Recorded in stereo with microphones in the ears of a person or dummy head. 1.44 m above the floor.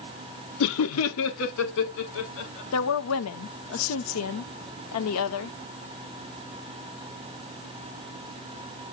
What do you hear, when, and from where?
0.6 s laughter: 75° left (ahead or behind), 0.8 m; by 2.6 s 60° left (ahead or behind), 2 m
2.7 s a woman speaking: 75° left (ahead or behind), 0.9 m